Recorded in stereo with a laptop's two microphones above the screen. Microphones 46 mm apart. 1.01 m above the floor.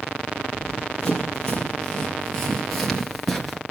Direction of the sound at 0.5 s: 20° left (ahead or behind).